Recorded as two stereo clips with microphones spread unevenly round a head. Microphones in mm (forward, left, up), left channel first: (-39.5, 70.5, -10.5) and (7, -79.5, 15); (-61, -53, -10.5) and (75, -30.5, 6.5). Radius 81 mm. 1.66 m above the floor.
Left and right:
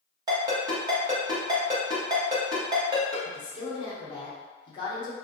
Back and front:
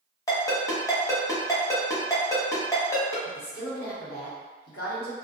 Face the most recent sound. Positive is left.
turn(degrees=170)